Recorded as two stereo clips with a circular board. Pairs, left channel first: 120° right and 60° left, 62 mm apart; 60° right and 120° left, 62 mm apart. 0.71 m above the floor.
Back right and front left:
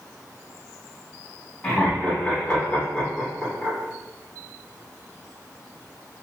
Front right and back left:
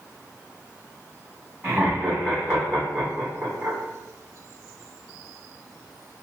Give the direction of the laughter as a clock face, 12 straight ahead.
6 o'clock.